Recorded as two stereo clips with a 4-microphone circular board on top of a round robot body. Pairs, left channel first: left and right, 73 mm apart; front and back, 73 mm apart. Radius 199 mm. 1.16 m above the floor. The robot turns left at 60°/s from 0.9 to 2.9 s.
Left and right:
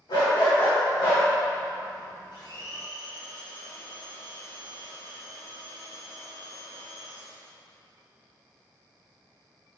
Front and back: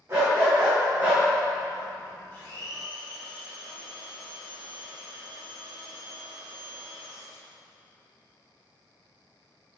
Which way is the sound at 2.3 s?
60° left.